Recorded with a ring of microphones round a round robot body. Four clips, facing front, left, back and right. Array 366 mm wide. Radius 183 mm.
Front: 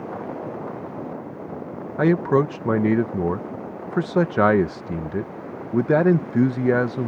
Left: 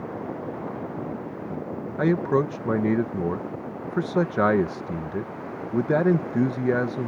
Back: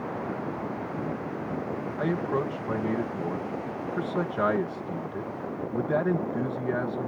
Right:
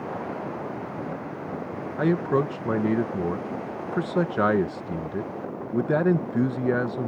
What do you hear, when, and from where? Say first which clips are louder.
2.0 s a man speaking: left 1 dB, front 10 dB; 5° left